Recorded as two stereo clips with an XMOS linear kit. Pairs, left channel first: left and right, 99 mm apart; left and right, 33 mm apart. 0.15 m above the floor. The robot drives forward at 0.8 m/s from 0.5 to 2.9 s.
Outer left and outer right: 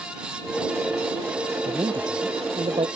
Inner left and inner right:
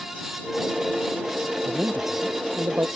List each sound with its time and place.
1.6 s a man speaking: 50° right (ahead or behind); by 2.9 s 60° right (ahead or behind)